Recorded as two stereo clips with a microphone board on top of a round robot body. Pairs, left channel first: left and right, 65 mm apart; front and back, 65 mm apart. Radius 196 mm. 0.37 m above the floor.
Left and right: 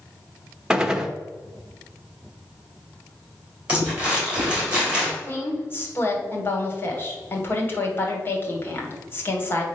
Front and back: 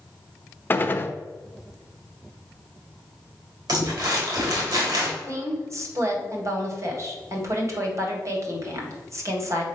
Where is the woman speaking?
145° left, 2 m.